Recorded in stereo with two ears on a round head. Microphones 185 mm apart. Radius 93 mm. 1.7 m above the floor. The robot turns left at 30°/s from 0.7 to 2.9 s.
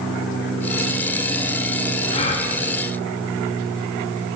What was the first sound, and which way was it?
A gasp, 30° left (ahead or behind).